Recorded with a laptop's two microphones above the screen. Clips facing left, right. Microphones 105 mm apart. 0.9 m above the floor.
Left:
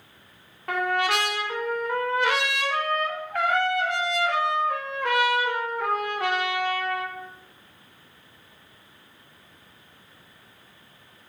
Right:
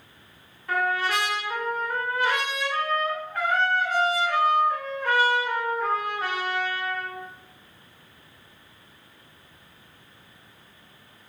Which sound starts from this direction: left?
A trumpet, at 0.7 s.